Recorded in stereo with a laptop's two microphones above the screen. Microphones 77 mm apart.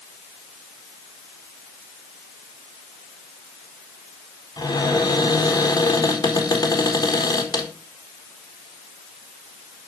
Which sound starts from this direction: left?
A cupboard door, at 4.6 s.